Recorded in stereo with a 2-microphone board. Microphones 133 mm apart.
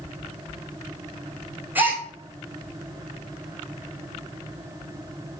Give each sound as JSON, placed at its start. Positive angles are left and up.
{"t": 1.8, "sound": "a gasp", "side_deg": -15, "distance_m": 1.6}